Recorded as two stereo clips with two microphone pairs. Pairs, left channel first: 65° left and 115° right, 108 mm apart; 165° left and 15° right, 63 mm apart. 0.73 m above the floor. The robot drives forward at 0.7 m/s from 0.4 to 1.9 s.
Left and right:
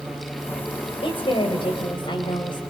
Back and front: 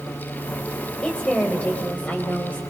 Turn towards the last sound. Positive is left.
turn(degrees=105)